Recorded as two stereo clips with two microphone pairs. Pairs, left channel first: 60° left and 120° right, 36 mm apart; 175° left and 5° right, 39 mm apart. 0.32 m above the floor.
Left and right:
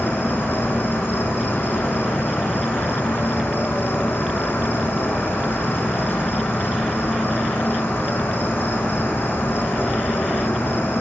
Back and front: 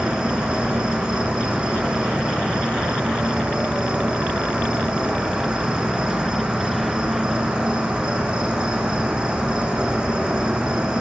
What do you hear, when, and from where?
0.0 s an insect: 60° left, 0.9 m